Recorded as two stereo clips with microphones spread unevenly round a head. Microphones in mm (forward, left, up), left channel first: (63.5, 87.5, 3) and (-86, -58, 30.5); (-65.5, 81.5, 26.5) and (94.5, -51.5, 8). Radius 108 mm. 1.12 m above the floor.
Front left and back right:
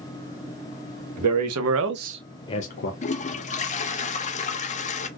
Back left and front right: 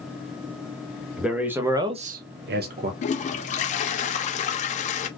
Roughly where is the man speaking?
Behind right.